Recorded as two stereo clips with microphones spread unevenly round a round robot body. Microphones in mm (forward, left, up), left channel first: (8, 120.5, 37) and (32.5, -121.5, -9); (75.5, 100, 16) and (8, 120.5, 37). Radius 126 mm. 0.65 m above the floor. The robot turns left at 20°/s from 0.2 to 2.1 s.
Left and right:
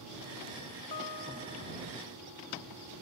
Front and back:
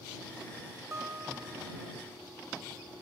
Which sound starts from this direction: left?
A guitar, at 0.9 s.